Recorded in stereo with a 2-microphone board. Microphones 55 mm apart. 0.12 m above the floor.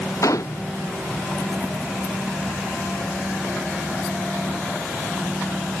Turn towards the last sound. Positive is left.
turn(degrees=80)